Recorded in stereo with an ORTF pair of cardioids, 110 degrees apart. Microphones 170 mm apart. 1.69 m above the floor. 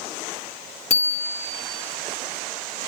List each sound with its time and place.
0.9 s a bicycle bell: 45° left, 2.5 m